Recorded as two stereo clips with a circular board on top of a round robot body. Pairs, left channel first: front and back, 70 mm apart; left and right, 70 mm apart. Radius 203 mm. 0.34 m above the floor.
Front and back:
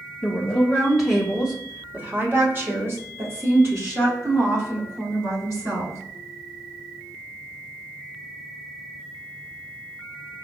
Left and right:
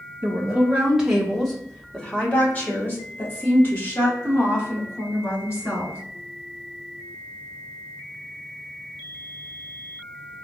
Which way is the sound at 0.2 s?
45° right.